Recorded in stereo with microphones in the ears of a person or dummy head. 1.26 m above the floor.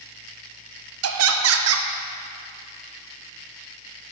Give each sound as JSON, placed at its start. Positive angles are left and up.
{"t": 1.0, "sound": "laughter", "side_deg": -70, "distance_m": 0.7}